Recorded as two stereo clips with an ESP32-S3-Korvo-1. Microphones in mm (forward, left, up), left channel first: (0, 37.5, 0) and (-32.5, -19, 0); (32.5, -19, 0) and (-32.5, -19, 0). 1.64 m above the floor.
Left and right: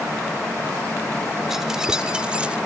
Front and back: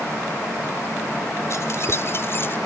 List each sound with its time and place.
1.5 s keys jangling: 35° right; by 2.6 s 50° right